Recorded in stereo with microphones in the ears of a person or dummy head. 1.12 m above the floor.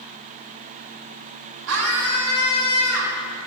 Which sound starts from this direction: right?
A scream, at 1.7 s.